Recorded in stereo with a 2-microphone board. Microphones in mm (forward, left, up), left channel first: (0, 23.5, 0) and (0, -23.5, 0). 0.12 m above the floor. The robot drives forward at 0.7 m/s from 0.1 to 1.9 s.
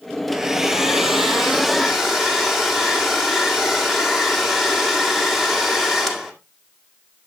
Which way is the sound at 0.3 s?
10° right (ahead or behind).